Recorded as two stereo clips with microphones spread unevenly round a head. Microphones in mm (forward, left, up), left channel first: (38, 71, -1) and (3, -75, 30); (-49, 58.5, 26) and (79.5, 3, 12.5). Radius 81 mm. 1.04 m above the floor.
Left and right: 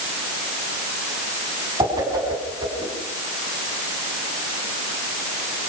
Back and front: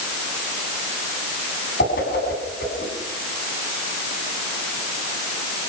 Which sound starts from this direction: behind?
A whoosh, at 1.8 s.